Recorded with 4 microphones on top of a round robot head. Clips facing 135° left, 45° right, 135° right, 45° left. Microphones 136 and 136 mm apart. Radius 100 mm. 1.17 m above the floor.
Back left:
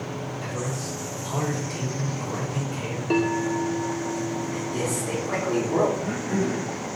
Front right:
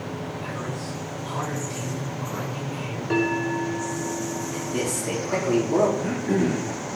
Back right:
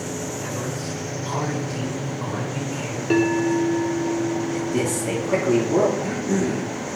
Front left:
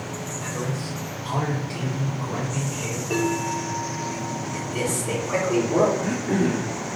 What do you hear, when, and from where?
0.4 s a man speaking: 145° left, 5.5 m
3.1 s a bell: 155° right, 1.8 m
4.5 s a man speaking: 120° right, 4 m
6.0 s throat clearing: 65° right, 3 m